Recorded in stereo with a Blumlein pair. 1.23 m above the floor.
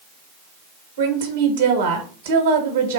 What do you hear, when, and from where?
1.0 s a woman speaking: 60° right, 1.4 m